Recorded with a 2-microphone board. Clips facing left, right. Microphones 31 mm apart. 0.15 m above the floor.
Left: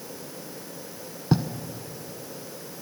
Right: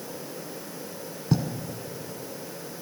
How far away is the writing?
About 0.7 m.